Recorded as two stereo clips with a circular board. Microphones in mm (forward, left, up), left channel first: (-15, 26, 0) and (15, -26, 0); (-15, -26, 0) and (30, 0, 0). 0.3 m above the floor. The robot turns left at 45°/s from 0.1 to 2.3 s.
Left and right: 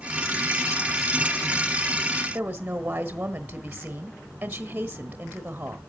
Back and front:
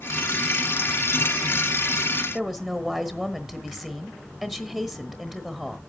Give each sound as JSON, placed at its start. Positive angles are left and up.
{"t": 2.3, "sound": "a woman speaking", "azimuth_deg": -35, "distance_m": 1.0}